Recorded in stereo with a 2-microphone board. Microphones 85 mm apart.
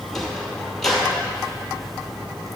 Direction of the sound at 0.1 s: 5° left (ahead or behind).